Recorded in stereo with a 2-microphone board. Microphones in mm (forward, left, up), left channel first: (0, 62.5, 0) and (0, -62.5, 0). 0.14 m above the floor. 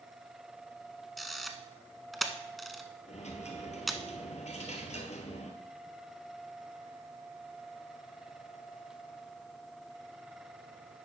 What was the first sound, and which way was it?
A camera shutter, centre (ahead or behind).